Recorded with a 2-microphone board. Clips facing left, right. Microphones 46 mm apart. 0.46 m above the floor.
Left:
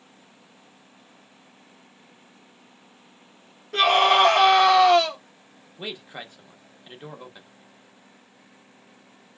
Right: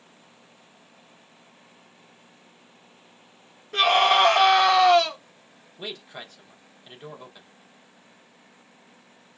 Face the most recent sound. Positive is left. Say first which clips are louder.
# left 2 dB
turn(degrees=15)  # may be behind; listen again after turning